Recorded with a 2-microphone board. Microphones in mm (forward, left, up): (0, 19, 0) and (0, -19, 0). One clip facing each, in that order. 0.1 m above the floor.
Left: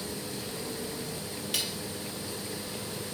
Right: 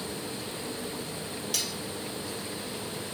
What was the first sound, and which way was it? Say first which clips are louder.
Cutlery clinking: left 2 dB; 25° left (ahead or behind).